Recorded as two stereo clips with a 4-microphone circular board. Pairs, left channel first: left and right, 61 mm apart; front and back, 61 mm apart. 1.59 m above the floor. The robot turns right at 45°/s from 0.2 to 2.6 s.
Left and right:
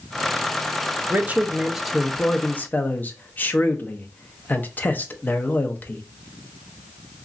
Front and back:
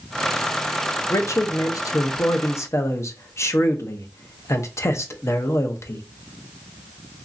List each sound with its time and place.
1.1 s a man speaking: 35° right, 0.6 m; by 6.0 s 35° left, 0.6 m